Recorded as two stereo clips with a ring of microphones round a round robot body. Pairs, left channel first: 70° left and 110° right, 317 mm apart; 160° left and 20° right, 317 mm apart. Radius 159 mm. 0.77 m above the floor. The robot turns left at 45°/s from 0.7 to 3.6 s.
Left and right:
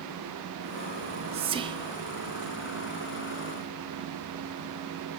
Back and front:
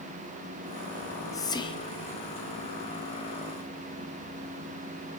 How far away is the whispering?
About 0.7 m.